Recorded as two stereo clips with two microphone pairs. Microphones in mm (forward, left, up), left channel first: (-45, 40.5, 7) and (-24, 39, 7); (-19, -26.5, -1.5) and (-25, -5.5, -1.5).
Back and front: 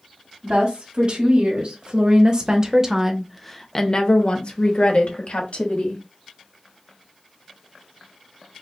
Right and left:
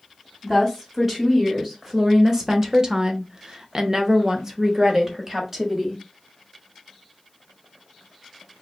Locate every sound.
0.4 s a woman speaking: 25° left, 1.9 m; by 6.0 s 175° left, 1.8 m